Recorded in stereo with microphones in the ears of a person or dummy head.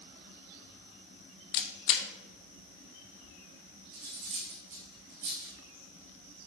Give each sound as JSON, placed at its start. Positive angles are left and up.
{"t": 1.5, "sound": "a camera shutter", "side_deg": 60, "distance_m": 0.8}
{"t": 3.9, "sound": "cutlery clinking", "side_deg": -40, "distance_m": 1.9}